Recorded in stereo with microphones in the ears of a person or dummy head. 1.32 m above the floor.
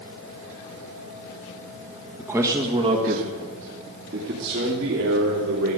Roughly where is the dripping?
No dripping in this recording.